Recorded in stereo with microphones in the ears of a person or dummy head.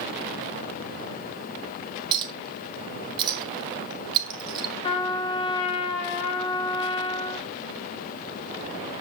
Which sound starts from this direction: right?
A clink, at 2.1 s.